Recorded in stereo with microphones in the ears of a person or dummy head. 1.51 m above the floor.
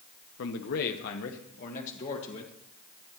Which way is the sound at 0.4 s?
65° left (ahead or behind).